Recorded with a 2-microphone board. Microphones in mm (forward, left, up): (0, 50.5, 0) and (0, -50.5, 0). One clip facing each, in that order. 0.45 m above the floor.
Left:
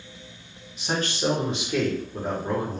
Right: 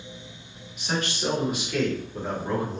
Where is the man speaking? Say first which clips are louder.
Left 2 dB; 30° left (ahead or behind), 1.0 m; by 2.8 s 5° left (ahead or behind), 1.0 m.